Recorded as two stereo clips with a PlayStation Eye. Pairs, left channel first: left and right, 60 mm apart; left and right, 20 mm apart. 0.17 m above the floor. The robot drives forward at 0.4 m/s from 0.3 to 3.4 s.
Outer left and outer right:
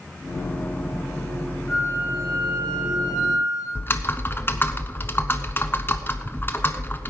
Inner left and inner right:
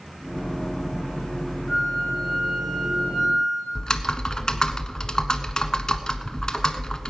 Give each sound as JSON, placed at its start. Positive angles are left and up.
{"t": 1.7, "sound": "a flute", "side_deg": 10, "distance_m": 9.0}
{"t": 3.8, "sound": "typing on a keyboard", "side_deg": 35, "distance_m": 0.9}